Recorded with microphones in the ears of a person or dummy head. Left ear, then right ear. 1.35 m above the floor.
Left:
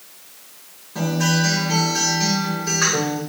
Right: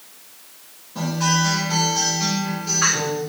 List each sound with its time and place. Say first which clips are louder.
0.9 s a guitar: even; 45° left (ahead or behind), 3 m